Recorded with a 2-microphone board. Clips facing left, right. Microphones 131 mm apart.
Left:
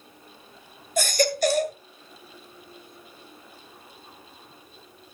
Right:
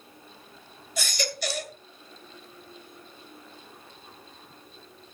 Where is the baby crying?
50° left (ahead or behind), 1.6 m.